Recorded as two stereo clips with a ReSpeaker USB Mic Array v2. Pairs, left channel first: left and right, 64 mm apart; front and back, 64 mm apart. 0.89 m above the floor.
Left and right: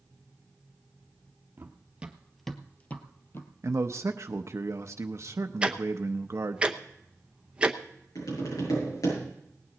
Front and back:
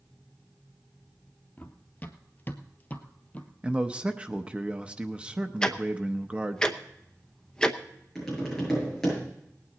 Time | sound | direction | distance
1.6 | running footsteps | 50° right | 1.2 m
3.6 | a man speaking | 110° right | 0.6 m
5.6 | ticking | 50° right | 0.8 m
8.2 | tapping | 85° left | 8 m